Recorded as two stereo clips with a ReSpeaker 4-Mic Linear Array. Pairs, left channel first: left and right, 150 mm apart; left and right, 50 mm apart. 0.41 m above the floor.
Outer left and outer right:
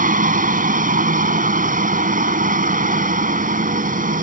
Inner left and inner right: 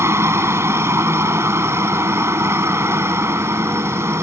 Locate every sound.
0.0 s a helicopter: 60° right (ahead or behind)